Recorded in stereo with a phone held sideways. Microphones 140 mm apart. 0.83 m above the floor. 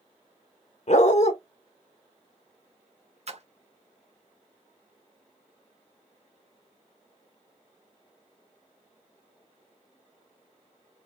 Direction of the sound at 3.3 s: 50° right (ahead or behind).